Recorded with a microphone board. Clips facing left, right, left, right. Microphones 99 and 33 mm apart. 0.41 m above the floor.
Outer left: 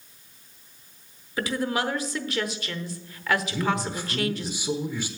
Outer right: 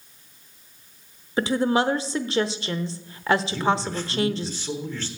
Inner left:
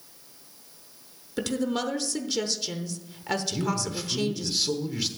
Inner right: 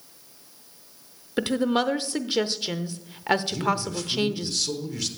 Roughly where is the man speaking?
Centre.